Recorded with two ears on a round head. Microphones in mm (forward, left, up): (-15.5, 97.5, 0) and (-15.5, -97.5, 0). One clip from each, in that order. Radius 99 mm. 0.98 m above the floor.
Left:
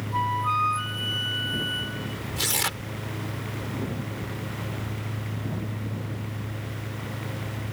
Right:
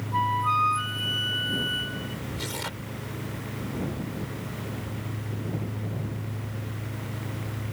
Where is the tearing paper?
70° left (ahead or behind).